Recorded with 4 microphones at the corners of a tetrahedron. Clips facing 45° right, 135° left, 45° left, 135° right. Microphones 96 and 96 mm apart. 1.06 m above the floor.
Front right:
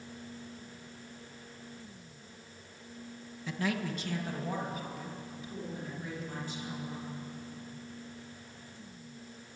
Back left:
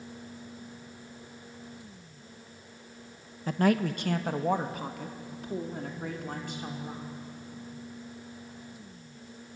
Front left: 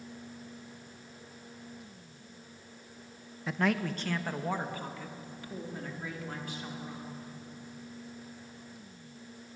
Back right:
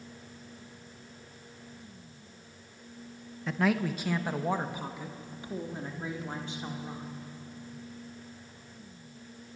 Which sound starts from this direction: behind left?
A man speaking, at 3.5 s.